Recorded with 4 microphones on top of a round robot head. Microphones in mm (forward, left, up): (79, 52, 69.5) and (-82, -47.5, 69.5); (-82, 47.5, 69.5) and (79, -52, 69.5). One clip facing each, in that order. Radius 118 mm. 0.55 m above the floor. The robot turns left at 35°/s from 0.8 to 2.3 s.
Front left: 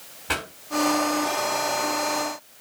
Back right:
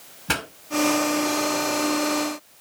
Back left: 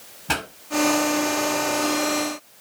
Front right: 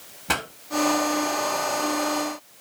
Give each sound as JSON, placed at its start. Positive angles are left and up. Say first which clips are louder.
{"t": 0.3, "sound": "a pop", "louder": "back right 2 dB, back left 1 dB", "azimuth_deg": -115, "distance_m": 7.0}